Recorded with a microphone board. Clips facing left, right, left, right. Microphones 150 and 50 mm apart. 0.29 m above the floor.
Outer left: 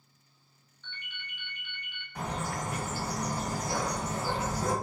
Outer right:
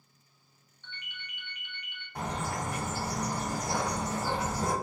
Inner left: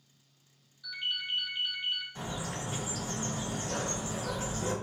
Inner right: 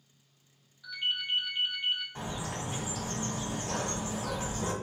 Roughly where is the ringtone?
Centre.